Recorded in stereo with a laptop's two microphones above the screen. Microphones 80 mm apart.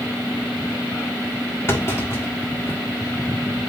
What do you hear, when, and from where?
1.7 s a clunk: 35° left (ahead or behind), 1.7 m